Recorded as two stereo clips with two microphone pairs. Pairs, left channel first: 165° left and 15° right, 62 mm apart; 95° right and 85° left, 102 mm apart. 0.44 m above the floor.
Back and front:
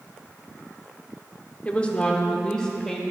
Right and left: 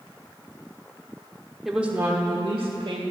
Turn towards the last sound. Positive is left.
turn(degrees=75)